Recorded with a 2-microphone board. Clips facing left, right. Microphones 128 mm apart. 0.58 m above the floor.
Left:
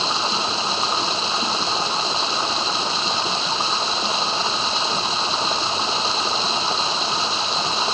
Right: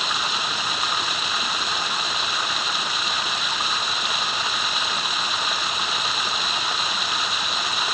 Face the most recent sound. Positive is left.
turn(degrees=30)  # may be behind; listen again after turning